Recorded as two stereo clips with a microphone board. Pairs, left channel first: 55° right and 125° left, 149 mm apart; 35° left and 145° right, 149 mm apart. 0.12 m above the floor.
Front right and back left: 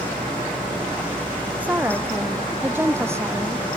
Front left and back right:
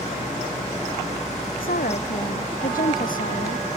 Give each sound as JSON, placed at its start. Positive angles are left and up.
{"t": 1.6, "sound": "a woman speaking", "azimuth_deg": 45}